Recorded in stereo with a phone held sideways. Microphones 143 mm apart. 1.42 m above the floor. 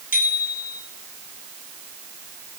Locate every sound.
0.1 s a bicycle bell: 70° left (ahead or behind), 9 m